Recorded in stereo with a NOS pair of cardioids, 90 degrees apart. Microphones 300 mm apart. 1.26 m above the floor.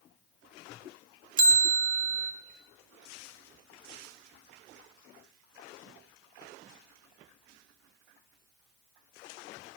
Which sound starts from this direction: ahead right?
A bell, at 1.4 s.